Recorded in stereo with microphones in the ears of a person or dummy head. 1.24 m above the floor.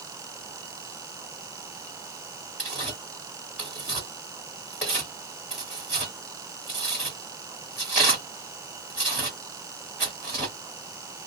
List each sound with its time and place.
2.6 s tearing paper: centre (ahead or behind), 1.6 m